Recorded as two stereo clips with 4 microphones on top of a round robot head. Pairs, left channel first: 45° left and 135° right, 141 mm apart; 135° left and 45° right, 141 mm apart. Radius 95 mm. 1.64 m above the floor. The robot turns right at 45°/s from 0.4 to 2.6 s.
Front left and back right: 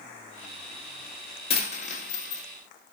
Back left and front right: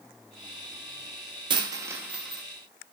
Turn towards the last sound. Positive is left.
turn(degrees=55)